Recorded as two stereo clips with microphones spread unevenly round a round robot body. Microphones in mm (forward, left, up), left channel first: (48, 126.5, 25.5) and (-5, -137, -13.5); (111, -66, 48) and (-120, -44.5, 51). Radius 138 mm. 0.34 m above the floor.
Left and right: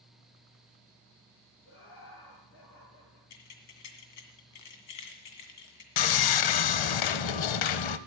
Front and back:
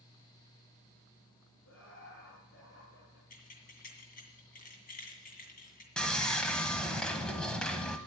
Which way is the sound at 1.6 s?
35° left.